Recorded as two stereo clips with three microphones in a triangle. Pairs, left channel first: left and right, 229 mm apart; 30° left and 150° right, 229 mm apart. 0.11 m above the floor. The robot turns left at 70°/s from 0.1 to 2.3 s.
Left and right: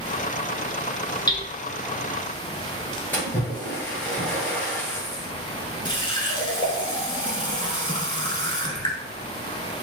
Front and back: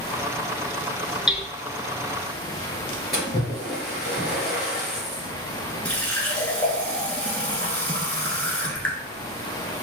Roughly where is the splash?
Ahead.